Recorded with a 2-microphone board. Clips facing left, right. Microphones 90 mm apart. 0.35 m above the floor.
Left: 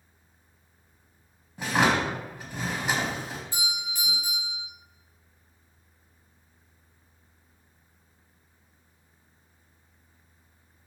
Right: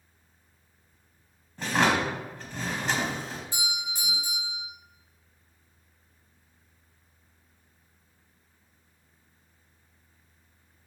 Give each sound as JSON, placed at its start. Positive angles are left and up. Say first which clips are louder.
{"t": 1.6, "sound": "a drawer", "louder": "left 1 dB", "side_deg": 10, "distance_m": 0.8}
{"t": 3.5, "sound": "a doorbell", "louder": "even", "side_deg": -20, "distance_m": 1.7}